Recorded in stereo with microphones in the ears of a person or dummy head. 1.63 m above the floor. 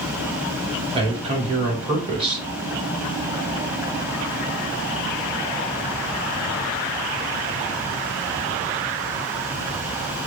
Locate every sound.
0.9 s a man speaking: 30° right (ahead or behind), 2.5 m